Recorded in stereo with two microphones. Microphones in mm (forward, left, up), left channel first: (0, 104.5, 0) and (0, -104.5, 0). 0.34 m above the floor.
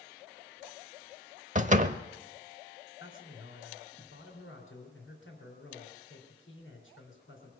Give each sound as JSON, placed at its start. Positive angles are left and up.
{"t": 1.6, "sound": "a door slam", "side_deg": -35, "distance_m": 0.7}
{"t": 3.0, "sound": "a man speaking", "side_deg": 65, "distance_m": 3.5}